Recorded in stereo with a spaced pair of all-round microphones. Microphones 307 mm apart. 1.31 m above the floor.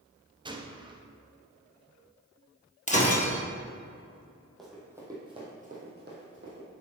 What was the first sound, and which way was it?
A gunshot, 15° right (ahead or behind).